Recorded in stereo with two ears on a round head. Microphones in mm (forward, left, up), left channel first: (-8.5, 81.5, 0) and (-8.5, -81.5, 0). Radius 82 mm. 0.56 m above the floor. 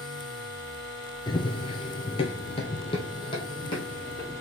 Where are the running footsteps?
25° left (ahead or behind), 0.5 m.